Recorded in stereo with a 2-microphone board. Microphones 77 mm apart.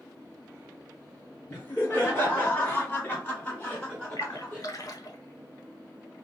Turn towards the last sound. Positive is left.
turn(degrees=55)  # may be behind; listen again after turning